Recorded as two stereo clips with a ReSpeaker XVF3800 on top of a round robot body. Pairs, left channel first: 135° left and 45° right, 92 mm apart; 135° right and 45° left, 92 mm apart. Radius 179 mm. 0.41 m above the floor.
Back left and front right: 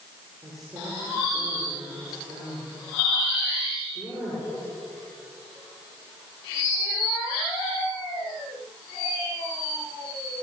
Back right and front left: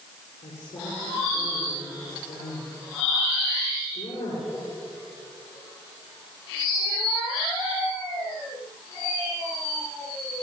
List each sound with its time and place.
0.4 s a woman speaking: 130° right, 9 m